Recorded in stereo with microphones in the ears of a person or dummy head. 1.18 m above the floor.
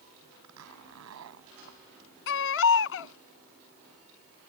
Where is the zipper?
85° right.